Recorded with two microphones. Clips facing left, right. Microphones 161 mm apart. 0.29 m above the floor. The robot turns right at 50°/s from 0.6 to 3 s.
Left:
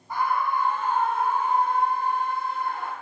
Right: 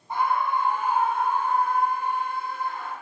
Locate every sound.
0.1 s a scream: 30° right, 1.9 m; by 2.9 s 85° left, 1.9 m